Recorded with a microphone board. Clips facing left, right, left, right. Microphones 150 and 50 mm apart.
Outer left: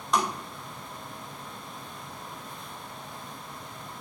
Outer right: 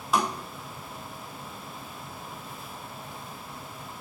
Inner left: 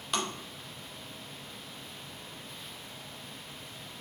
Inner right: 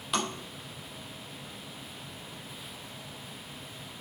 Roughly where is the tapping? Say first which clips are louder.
Outer right 1 dB, inner right 2 dB; centre.